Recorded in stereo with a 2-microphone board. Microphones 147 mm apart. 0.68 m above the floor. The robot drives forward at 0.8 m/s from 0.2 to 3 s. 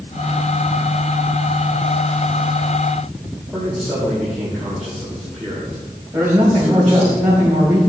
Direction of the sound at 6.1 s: 15° right (ahead or behind).